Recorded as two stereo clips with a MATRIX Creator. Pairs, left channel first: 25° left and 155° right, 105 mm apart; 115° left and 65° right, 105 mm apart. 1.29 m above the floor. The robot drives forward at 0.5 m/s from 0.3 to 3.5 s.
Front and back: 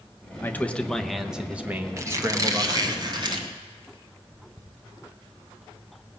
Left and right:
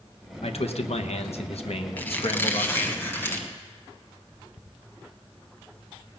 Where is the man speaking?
95° left, 0.9 m; by 3.0 s 145° left, 1.6 m.